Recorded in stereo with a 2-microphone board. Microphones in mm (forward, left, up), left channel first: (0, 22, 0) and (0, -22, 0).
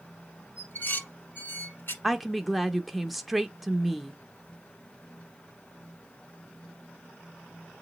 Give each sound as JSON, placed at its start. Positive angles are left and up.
{"t": 0.6, "sound": "dishes clattering", "side_deg": 50, "distance_m": 1.5}
{"t": 2.0, "sound": "a woman speaking", "side_deg": 0, "distance_m": 0.6}